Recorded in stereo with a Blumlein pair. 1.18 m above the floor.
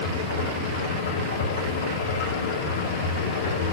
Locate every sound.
0.0 s a machine running: 60° left, 2.0 m